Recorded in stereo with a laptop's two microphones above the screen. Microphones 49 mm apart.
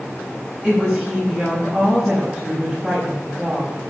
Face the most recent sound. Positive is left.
turn(degrees=0)  # may be behind; listen again after turning